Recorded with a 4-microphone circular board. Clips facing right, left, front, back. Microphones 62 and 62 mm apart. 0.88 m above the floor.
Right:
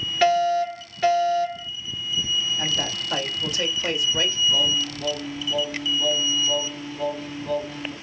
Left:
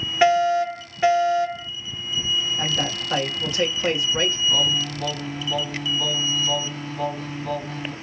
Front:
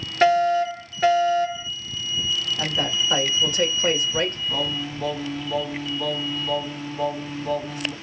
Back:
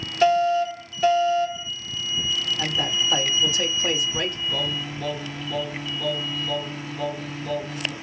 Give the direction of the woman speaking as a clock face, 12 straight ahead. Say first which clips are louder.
Left 2 dB, front 1 dB; 11 o'clock.